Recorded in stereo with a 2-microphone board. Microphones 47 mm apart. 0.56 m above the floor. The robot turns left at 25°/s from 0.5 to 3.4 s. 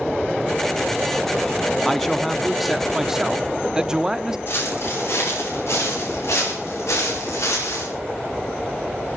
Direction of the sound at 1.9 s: 10° left.